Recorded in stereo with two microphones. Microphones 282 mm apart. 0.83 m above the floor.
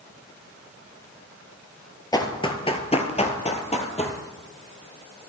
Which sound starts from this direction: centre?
Running footsteps, at 2.1 s.